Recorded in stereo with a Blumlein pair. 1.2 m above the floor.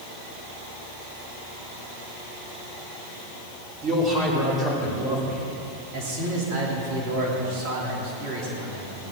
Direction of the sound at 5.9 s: 40° right.